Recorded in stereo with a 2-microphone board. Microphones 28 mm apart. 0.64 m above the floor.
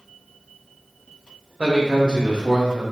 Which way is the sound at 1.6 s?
40° right (ahead or behind).